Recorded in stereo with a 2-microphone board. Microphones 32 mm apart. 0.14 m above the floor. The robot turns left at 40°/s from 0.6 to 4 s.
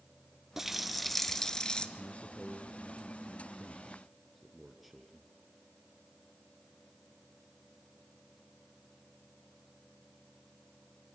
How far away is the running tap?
About 1.2 m.